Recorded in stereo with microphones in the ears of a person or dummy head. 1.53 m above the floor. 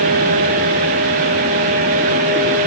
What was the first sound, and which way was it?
Only background noise.